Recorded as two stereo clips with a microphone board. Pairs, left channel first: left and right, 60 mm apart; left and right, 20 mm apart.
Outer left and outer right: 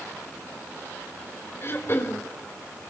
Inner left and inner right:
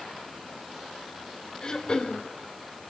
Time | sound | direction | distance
1.6 | throat clearing | 40° left (ahead or behind) | 1.4 m